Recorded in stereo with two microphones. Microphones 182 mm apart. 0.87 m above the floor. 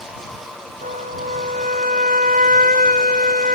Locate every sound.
0.8 s a flute: 50° right (ahead or behind)